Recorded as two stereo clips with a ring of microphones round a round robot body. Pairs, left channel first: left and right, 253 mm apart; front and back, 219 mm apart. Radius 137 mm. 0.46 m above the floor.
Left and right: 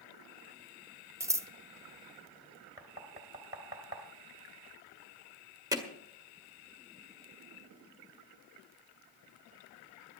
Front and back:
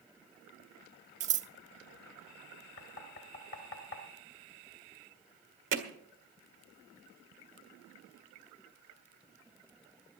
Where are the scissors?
160° right, 0.7 m.